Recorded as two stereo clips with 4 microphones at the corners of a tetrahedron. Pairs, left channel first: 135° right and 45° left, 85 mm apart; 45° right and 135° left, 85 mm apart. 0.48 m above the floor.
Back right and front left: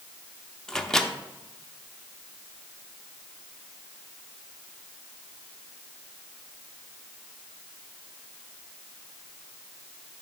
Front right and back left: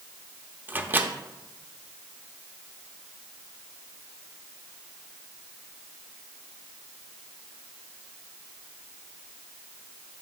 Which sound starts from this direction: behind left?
A microwave, at 0.7 s.